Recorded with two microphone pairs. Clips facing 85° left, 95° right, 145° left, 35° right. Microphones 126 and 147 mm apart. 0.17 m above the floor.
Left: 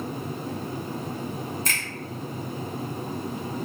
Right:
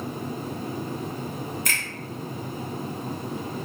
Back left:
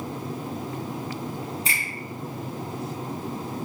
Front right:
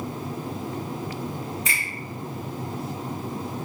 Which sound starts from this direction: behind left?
A finger snap, at 1.6 s.